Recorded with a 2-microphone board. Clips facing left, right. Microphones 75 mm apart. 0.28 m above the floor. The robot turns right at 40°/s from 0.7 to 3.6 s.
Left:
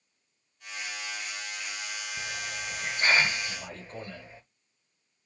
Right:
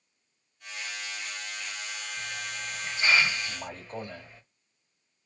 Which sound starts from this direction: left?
A hiss, at 2.2 s.